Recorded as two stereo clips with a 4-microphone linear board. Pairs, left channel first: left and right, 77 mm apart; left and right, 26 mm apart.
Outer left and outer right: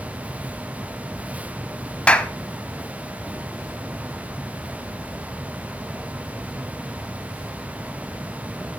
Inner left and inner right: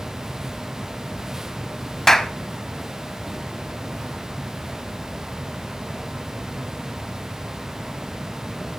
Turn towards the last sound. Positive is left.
turn(degrees=15)  # may be behind; listen again after turning